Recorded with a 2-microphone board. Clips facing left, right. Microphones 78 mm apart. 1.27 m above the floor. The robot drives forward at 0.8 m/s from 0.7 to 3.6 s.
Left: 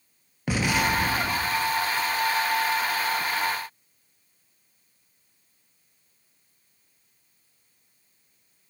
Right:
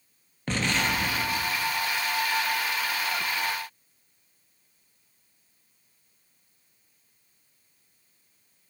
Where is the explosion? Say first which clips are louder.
Left 3 dB; 10° left (ahead or behind), 0.7 m; by 1.7 s 5° left (ahead or behind), 1.3 m.